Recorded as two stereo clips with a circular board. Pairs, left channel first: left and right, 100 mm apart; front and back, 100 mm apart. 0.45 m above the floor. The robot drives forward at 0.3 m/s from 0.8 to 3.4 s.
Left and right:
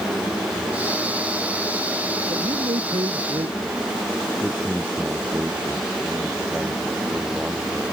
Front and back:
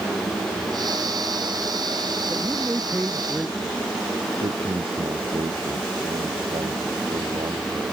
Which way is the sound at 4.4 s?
165° right.